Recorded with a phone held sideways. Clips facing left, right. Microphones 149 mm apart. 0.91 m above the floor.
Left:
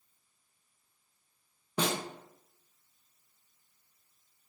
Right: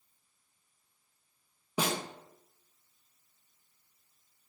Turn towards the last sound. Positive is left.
turn(degrees=-10)  # may be behind; listen again after turning